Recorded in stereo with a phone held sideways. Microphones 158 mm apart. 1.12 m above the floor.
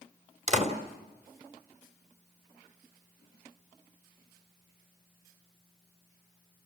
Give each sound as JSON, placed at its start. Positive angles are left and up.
{"t": 0.5, "sound": "a door slam", "side_deg": -45, "distance_m": 2.5}